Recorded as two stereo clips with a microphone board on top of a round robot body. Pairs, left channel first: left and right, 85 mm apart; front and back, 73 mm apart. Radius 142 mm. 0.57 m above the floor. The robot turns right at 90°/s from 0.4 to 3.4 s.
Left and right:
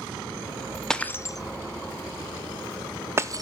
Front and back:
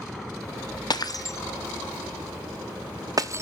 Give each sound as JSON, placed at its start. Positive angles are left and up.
{"t": 0.9, "sound": "breaking glass", "azimuth_deg": 5, "distance_m": 0.8}